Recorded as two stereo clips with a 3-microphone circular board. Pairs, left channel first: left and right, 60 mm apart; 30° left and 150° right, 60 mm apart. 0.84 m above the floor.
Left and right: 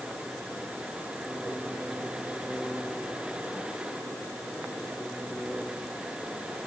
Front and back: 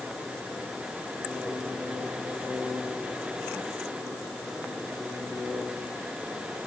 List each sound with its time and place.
Only background noise.